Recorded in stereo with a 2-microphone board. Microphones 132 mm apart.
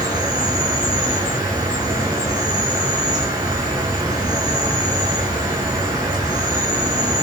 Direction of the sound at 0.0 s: 30° right (ahead or behind).